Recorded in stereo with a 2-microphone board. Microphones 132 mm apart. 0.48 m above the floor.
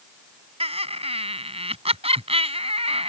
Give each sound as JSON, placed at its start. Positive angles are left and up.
{"t": 0.6, "sound": "laughter", "side_deg": -50}